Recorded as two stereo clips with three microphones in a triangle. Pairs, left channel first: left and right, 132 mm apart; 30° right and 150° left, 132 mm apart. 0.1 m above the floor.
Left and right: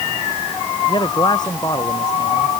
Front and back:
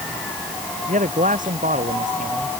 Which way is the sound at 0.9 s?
145° left.